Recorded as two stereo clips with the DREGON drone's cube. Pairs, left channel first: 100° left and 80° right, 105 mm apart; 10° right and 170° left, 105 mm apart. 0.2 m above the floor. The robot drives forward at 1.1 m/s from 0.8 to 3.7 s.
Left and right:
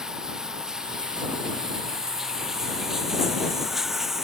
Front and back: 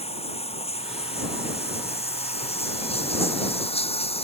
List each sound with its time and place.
0.0 s running water: 5° left; by 4.2 s 10° left